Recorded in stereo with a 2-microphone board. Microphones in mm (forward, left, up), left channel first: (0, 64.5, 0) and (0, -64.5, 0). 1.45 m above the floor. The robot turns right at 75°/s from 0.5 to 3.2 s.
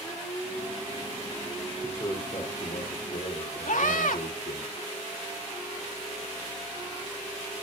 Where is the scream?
85° left, 2.5 m.